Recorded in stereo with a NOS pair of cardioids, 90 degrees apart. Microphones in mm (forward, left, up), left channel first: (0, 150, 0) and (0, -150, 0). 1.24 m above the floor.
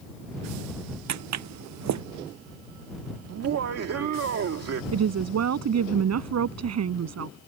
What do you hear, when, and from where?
1.1 s footsteps: 65° right
3.3 s laughter: 55° right
4.9 s a woman speaking: 60° right